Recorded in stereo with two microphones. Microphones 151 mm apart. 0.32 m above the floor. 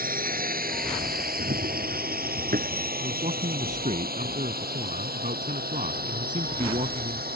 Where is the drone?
70° right (ahead or behind); by 7.4 s 85° right.